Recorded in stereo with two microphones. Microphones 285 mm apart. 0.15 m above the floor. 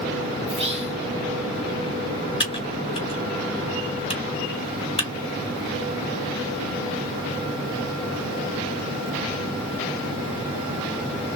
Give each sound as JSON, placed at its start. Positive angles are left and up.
{"t": 0.5, "sound": "whispering", "side_deg": -20, "distance_m": 1.0}
{"t": 2.4, "sound": "typing on a keyboard", "side_deg": 20, "distance_m": 1.7}